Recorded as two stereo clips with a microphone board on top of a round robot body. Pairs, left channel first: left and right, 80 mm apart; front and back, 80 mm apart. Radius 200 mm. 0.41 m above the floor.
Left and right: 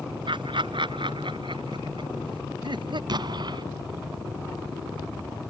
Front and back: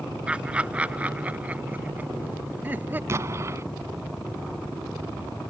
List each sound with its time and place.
0.3 s laughter: 105° right; by 3.0 s 115° right
3.1 s an explosion: 125° right